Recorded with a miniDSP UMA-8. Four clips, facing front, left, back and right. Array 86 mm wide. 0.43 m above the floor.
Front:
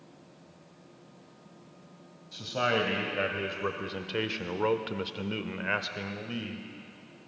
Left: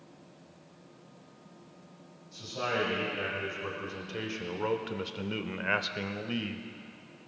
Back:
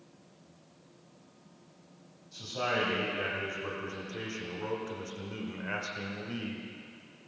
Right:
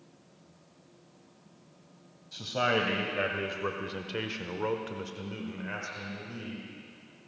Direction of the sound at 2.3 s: 55° right.